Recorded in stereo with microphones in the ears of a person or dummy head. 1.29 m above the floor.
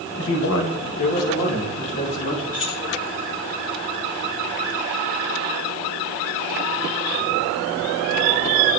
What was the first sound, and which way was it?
A man speaking, 60° left (ahead or behind).